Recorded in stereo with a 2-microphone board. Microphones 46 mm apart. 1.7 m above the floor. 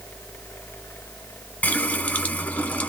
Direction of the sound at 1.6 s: 30° left (ahead or behind).